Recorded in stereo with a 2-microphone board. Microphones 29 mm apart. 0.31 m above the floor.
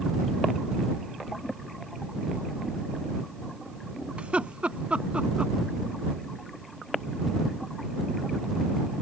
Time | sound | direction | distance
4.2 | laughter | 50° right (ahead or behind) | ?